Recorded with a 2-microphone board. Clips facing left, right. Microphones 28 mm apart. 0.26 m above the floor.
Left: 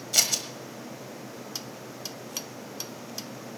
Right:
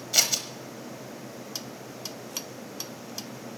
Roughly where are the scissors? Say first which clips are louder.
Right 1 dB; centre.